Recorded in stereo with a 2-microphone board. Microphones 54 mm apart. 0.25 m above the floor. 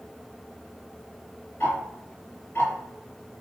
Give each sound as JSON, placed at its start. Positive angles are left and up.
{"t": 1.6, "sound": "ticking", "side_deg": 50, "distance_m": 1.6}